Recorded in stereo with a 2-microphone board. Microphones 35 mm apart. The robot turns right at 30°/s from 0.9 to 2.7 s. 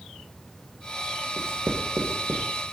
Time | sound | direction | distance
1.4 | writing | 80° right | 1.8 m